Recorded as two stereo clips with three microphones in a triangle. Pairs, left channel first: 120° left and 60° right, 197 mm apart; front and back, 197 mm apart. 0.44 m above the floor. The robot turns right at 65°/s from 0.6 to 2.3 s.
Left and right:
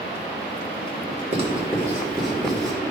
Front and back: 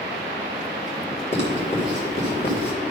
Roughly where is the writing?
Ahead right.